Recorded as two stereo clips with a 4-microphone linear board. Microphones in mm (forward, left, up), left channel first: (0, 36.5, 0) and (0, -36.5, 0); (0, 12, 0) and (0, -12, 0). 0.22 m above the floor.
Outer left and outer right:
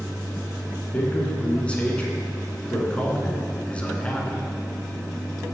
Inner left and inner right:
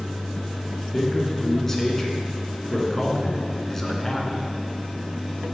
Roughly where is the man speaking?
Centre.